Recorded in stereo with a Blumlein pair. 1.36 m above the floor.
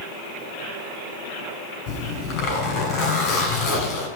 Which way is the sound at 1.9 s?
45° left.